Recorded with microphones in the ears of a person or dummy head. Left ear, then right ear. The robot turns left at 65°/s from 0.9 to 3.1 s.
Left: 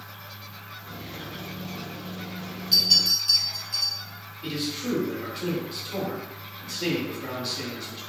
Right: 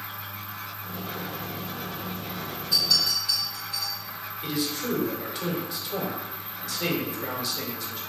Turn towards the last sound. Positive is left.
turn(degrees=-65)  # may be behind; listen again after turning